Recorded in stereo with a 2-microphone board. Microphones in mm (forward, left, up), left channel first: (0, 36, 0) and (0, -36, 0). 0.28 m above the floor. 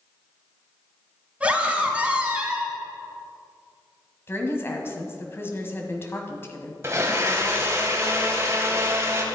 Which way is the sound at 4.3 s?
30° left (ahead or behind).